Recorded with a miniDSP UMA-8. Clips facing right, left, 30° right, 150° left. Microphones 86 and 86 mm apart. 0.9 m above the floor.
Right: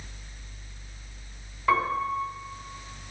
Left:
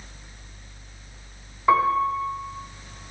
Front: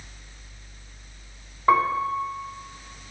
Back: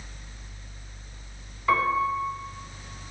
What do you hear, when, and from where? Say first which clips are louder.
1.7 s a piano: left 6 dB, front 3 dB; 15° left, 2.5 m